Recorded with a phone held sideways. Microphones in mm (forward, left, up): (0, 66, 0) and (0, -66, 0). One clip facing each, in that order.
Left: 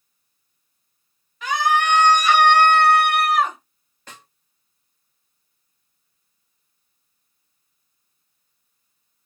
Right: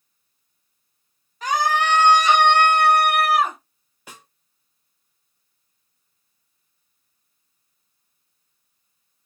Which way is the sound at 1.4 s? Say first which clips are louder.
Left 1 dB; 40° right (ahead or behind).